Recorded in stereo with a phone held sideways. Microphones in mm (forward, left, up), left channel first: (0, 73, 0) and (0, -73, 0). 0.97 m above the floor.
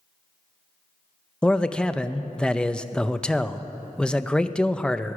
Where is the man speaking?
5° left (ahead or behind), 0.5 m.